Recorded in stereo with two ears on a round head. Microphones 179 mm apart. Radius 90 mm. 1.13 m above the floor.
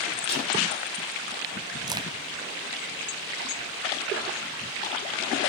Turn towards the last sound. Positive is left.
turn(degrees=-20)  # may be behind; listen again after turning